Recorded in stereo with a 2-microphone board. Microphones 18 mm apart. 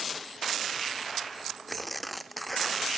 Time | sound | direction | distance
1.7 | tearing paper | centre (ahead or behind) | ?